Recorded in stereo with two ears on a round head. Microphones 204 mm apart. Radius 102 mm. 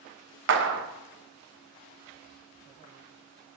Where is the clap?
55° right (ahead or behind), 0.8 m.